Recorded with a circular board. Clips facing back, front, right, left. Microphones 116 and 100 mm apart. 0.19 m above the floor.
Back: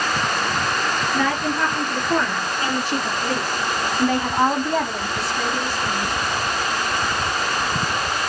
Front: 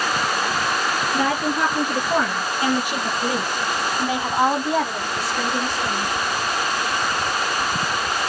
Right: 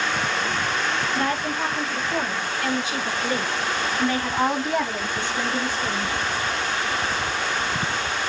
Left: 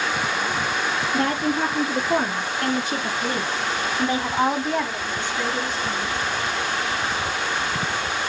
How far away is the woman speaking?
About 3 m.